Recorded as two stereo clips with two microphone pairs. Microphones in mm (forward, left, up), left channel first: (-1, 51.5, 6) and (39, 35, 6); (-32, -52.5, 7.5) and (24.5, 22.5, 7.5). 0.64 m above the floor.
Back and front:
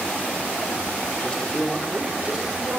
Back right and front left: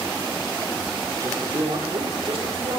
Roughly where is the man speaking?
Left.